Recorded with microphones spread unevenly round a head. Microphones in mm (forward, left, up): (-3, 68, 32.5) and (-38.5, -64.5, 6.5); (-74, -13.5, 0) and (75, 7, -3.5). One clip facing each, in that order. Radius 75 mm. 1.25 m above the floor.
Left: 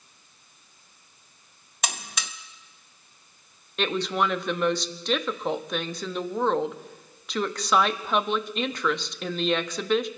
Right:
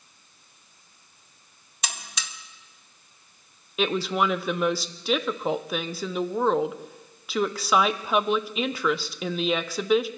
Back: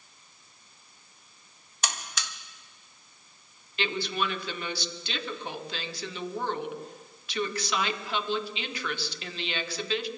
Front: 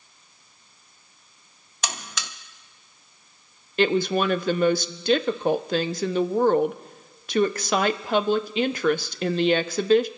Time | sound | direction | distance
1.8 | a buzzer | 30° left | 0.9 m
3.8 | a woman speaking | 30° right | 0.6 m